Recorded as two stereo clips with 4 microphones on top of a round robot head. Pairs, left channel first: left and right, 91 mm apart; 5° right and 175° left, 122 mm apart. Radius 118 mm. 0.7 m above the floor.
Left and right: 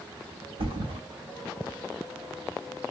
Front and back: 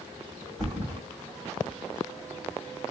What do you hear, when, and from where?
0.6 s a thud: 95° right, 1.9 m